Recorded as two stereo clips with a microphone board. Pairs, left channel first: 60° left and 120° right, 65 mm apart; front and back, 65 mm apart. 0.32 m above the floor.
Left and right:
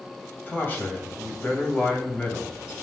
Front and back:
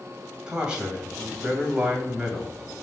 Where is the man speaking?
110° left, 1.9 m.